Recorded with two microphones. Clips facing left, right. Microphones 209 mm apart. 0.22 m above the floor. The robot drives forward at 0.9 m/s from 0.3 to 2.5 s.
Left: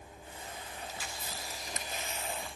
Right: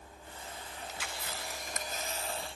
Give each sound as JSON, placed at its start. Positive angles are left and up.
{"t": 0.9, "sound": "a camera shutter", "side_deg": -75, "distance_m": 0.8}